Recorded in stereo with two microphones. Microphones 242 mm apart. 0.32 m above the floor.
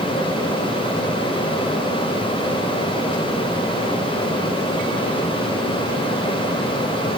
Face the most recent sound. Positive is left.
No sound to turn to.